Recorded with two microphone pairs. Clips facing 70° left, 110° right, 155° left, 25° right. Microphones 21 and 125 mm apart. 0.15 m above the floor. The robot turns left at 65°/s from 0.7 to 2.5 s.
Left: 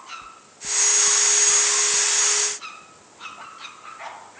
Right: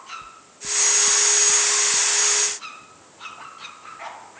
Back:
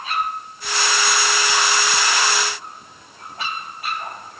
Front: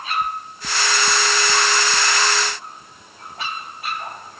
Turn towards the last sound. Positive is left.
turn(degrees=-155)